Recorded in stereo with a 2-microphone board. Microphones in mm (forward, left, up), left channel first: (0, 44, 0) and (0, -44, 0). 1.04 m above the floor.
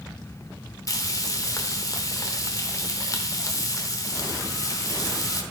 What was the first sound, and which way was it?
Frying, 40° left (ahead or behind).